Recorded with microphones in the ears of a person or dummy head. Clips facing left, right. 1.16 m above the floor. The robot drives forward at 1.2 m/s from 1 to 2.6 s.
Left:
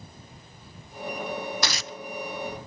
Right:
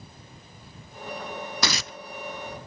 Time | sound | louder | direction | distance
1.6 | tearing paper | right 2 dB | 70° right (ahead or behind) | ?